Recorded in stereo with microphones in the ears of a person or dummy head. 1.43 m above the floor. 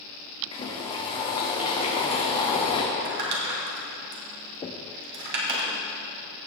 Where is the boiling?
35° left (ahead or behind), 2 m.